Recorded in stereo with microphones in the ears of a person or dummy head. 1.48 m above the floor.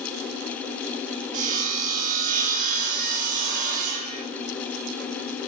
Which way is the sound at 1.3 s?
40° right (ahead or behind).